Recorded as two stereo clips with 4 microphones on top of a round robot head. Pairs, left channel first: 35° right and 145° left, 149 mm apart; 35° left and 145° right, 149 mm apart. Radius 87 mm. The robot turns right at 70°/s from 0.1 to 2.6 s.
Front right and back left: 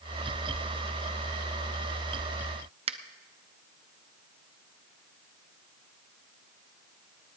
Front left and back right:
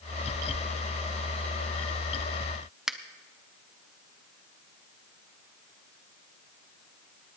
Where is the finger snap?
130° left, 0.8 m.